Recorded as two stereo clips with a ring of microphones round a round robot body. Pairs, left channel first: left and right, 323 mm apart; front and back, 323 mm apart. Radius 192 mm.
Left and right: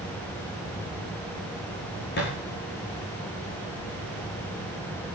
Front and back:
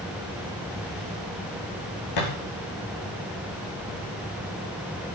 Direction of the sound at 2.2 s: 25° left.